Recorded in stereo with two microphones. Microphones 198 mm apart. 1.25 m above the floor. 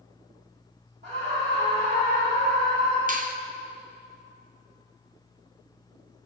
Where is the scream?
65° right (ahead or behind), 2.0 m; by 3.0 s 55° right (ahead or behind), 4 m.